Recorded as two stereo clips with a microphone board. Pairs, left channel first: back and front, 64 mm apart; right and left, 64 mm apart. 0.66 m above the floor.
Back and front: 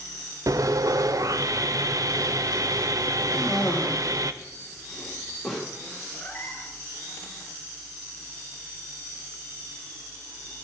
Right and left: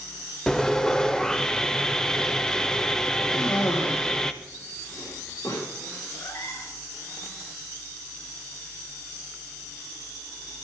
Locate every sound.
0.5 s sawing: 10° right, 0.5 m
3.3 s a cough: 90° right, 1.8 m
6.1 s a cat meowing: 110° right, 2 m